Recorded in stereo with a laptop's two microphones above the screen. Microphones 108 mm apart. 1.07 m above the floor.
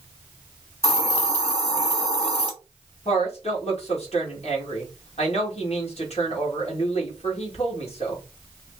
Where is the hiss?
70° left (ahead or behind), 2 m.